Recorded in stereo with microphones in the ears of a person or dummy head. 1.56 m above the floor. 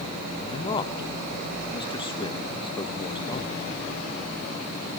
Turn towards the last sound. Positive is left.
turn(degrees=25)  # may be behind; listen again after turning